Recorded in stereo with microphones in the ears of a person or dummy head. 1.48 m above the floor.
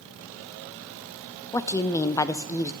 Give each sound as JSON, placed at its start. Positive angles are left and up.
{"t": 1.5, "sound": "a woman speaking", "side_deg": 15, "distance_m": 0.5}